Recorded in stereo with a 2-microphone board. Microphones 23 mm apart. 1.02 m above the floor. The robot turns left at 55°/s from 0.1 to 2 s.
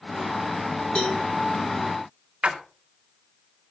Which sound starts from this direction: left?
A cowbell, at 0.9 s.